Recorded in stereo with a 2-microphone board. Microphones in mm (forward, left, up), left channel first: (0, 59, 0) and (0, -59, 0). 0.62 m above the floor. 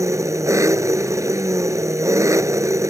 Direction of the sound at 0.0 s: 25° right (ahead or behind).